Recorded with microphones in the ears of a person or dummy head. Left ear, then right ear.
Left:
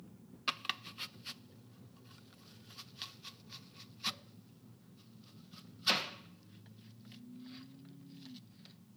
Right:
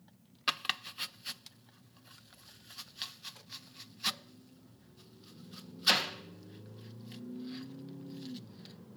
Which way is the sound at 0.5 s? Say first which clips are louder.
Right 4 dB; 25° right (ahead or behind).